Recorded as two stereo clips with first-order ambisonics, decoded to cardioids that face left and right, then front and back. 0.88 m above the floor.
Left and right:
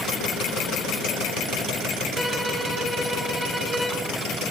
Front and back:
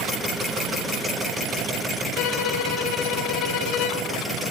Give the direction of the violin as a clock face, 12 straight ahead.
12 o'clock.